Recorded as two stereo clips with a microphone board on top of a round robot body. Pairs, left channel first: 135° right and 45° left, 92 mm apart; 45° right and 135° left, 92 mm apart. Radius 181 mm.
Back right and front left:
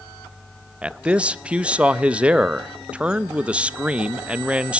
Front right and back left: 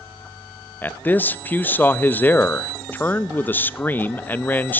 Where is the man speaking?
10° right, 1.0 m.